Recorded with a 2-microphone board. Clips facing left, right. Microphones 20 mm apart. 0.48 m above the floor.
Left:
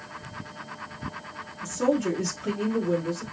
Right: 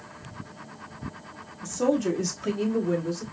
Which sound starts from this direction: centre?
A woman speaking, at 1.6 s.